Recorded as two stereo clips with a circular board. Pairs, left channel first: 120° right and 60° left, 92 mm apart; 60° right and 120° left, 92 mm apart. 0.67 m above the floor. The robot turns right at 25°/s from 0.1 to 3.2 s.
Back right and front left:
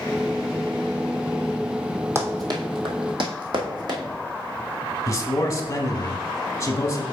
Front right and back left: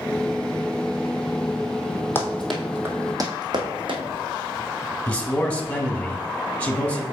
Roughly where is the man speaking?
Behind right.